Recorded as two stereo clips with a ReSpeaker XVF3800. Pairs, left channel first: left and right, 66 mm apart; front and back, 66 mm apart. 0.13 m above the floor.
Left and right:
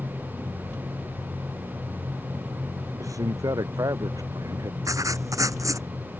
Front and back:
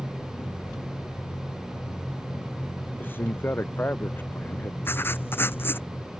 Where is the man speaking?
60° right.